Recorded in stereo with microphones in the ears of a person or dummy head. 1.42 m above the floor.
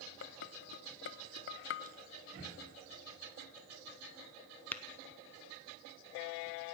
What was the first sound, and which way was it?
Dishes clattering, 60° left (ahead or behind).